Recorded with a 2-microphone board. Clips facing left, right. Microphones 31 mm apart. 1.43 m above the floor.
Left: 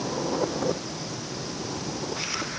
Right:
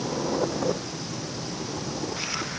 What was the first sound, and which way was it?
Only background noise.